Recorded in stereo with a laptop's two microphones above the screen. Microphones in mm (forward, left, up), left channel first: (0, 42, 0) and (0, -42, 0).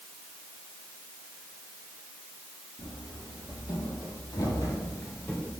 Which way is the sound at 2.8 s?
75° left (ahead or behind).